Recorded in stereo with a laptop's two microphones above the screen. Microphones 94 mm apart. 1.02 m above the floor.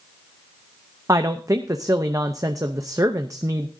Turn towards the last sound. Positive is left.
turn(degrees=-35)  # may be behind; listen again after turning